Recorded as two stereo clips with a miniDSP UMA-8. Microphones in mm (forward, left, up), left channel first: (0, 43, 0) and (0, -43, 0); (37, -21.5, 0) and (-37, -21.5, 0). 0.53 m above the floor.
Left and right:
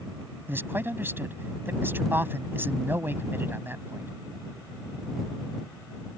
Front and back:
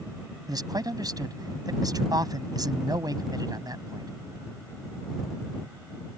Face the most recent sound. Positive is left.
turn(degrees=-155)